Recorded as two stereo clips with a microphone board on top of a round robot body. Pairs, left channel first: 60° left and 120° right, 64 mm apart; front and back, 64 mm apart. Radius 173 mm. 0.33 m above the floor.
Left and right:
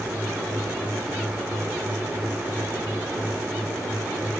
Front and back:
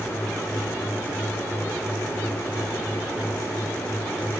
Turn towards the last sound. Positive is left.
No sound to turn to.